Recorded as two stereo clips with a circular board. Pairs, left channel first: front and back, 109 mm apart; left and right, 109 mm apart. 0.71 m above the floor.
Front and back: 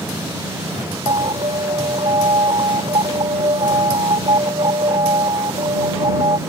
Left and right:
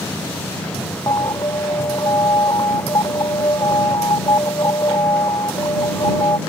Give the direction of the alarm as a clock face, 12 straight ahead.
7 o'clock.